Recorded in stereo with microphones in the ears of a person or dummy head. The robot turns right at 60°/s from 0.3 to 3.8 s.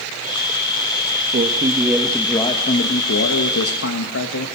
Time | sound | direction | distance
1.3 | a man speaking | 40° right | 2.5 m